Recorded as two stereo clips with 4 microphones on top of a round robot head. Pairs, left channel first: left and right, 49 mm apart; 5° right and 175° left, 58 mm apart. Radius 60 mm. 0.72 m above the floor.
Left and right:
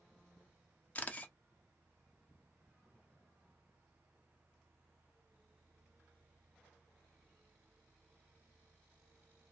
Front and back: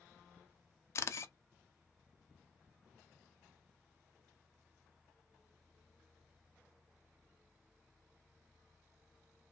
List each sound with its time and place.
0.9 s a camera shutter: 30° left, 0.6 m